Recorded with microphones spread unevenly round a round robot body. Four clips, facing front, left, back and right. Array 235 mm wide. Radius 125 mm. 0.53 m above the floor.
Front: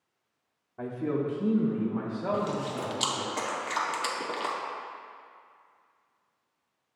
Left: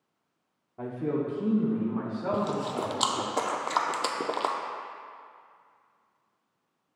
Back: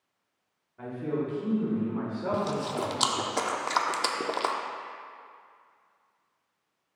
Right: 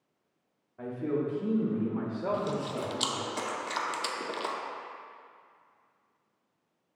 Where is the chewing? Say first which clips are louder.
Left 3 dB, back 3 dB; 125° left, 0.6 m.